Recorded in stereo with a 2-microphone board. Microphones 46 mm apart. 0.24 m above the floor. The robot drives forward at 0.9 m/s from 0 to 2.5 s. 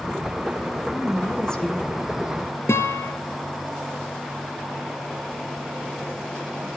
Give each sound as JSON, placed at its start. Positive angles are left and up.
{"t": 0.8, "sound": "a woman speaking", "side_deg": 15, "distance_m": 4.5}
{"t": 2.7, "sound": "a guitar", "side_deg": 70, "distance_m": 2.0}